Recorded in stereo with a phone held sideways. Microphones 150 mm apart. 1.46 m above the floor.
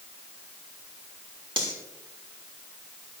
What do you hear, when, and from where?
1.6 s cutlery clinking: 35° right (ahead or behind), 3 m